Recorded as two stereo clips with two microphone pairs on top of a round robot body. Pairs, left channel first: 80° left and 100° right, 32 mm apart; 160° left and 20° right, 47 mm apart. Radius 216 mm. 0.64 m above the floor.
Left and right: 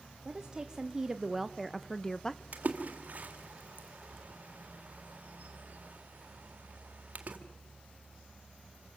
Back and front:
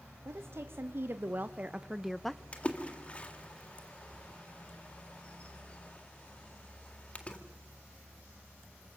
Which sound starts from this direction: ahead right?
A woman speaking, at 0.2 s.